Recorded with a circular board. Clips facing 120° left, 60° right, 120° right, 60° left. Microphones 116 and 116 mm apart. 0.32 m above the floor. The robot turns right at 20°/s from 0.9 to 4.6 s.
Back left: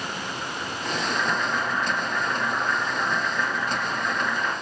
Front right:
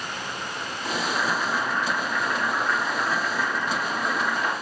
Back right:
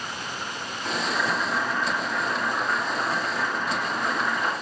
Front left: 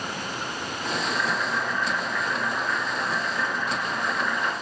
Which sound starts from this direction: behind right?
Boiling, at 1.0 s.